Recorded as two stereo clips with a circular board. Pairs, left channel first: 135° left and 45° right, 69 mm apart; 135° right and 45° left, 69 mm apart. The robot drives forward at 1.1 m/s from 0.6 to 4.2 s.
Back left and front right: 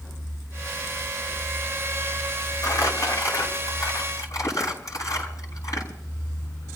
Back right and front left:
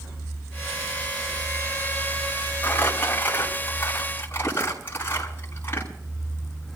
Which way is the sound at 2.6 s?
160° left.